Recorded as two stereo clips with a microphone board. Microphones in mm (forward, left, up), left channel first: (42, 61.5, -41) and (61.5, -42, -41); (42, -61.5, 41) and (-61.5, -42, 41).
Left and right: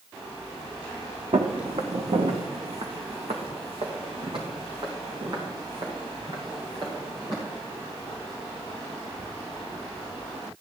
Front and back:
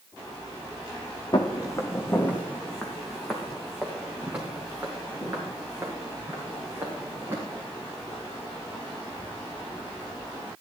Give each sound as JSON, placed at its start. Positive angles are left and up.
{"t": 1.3, "sound": "footsteps", "azimuth_deg": -60, "distance_m": 1.4}